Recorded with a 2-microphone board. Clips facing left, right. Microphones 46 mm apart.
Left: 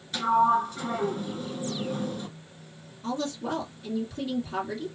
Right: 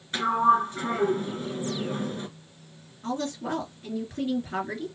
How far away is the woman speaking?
About 2.5 m.